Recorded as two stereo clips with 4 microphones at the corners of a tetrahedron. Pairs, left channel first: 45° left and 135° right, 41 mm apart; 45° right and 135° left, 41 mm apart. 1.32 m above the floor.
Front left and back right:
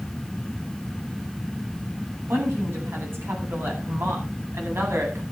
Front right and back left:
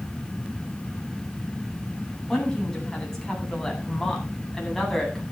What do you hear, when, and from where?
2.3 s a woman speaking: 120° right, 9 m; by 5.2 s 130° right, 8.5 m